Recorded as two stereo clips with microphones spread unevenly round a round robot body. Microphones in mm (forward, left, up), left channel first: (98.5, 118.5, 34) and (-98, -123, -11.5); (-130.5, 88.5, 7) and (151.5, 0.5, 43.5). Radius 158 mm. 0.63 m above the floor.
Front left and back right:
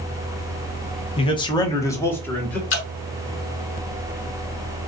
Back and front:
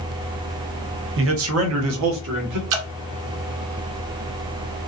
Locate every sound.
1.2 s a man speaking: 20° right, 0.9 m; by 2.6 s 40° right, 1.4 m
2.7 s dripping: straight ahead, 1.3 m